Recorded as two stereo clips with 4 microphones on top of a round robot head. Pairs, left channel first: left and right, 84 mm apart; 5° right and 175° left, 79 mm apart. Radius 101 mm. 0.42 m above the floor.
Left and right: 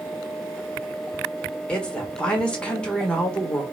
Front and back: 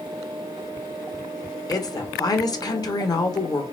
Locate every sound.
1.7 s a woman speaking: 15° left, 1.6 m